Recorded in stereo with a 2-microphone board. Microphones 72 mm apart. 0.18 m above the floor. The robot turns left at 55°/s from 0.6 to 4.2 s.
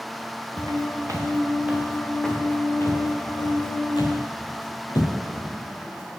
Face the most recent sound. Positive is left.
turn(degrees=75)  # may be behind; listen again after turning